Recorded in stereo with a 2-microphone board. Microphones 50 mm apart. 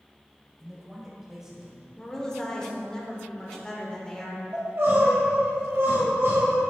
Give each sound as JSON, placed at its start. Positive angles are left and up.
{"t": 0.6, "sound": "a man speaking", "side_deg": -5, "distance_m": 1.5}
{"t": 2.0, "sound": "a woman speaking", "side_deg": 15, "distance_m": 1.1}
{"t": 4.5, "sound": "crying", "side_deg": -50, "distance_m": 1.9}